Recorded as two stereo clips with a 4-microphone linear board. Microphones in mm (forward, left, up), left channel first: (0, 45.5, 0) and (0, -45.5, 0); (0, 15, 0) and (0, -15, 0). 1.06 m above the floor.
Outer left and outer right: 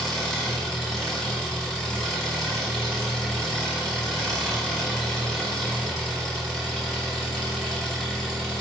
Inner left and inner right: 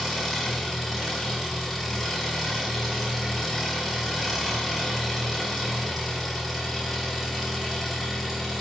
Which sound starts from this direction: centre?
An engine running, at 0.0 s.